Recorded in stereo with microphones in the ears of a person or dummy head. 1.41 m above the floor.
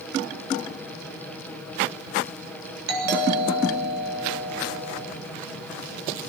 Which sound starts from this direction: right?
A doorbell, at 2.9 s.